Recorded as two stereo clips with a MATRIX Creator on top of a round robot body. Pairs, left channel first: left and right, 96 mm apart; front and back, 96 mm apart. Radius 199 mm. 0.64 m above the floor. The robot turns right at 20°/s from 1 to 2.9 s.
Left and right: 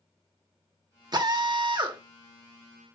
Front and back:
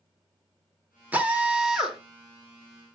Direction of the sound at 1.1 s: 110° right.